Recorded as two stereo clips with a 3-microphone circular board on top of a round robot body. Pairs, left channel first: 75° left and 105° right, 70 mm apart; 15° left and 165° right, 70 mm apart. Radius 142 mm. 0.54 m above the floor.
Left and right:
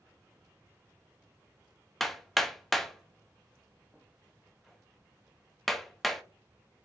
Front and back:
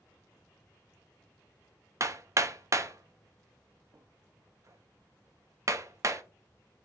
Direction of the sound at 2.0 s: 165° left.